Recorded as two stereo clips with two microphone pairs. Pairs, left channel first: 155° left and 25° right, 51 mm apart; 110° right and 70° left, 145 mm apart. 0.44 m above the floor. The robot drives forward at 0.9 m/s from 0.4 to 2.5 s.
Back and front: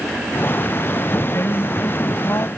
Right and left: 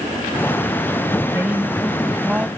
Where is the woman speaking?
140° left; by 2.5 s 155° left.